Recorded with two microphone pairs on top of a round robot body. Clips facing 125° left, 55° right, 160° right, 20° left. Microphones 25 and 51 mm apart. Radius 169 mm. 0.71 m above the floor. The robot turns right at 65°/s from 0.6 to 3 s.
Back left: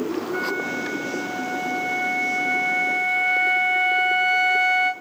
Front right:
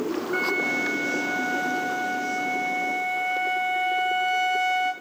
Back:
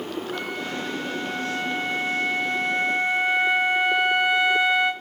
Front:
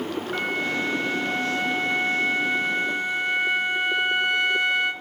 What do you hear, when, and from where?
0.3 s a flute: 20° right, 6 m; by 4.9 s 135° left, 6 m